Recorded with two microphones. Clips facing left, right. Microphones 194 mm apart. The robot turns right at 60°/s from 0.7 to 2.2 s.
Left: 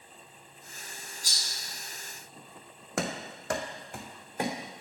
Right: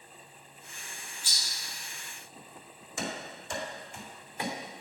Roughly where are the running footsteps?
Left.